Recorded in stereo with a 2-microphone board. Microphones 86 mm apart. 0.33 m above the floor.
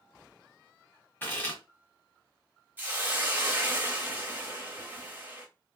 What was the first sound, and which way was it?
Chewing, 20° left (ahead or behind).